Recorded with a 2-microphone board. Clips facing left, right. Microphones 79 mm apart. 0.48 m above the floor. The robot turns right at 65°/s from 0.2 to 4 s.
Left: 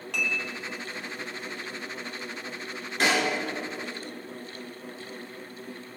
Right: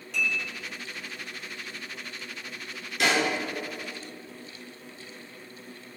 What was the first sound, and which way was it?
Dishes clattering, 70° left (ahead or behind).